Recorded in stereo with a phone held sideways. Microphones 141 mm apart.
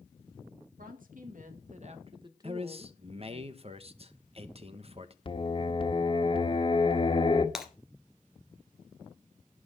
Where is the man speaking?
45° right (ahead or behind), 1.1 m.